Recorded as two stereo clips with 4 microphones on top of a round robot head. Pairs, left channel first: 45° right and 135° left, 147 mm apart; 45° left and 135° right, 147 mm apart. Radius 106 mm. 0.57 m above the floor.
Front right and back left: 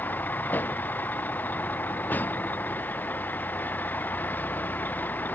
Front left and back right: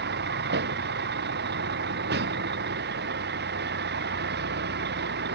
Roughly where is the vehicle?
Behind right.